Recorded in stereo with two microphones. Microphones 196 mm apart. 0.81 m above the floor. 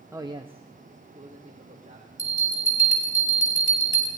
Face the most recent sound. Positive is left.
turn(degrees=-40)  # may be behind; listen again after turning